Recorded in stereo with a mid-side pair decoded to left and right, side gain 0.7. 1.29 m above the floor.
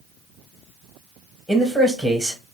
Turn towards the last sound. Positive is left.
turn(degrees=0)